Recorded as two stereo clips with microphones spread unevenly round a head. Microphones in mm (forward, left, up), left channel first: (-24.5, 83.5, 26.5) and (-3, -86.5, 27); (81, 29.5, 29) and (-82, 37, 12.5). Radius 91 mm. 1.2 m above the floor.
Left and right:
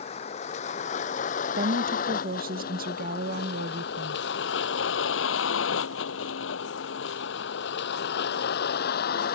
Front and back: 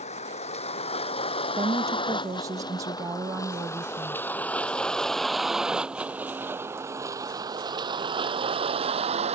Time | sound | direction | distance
0.0 | a vehicle | 45° left | ?
1.6 | a woman speaking | 115° right | ?